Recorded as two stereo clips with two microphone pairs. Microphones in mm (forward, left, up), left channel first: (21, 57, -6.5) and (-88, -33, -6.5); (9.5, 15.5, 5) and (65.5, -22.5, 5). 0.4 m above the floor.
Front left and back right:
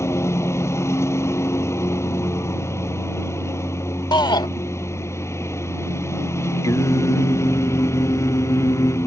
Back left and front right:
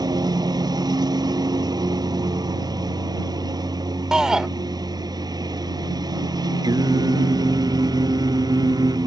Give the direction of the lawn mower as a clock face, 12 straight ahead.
1 o'clock.